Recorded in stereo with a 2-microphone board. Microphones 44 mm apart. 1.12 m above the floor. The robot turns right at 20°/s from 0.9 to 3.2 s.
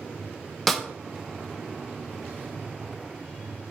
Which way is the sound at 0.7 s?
5° left (ahead or behind).